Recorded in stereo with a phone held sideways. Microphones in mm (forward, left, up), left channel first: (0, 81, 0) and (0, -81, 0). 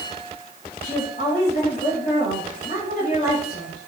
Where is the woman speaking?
45° left (ahead or behind), 3.5 m.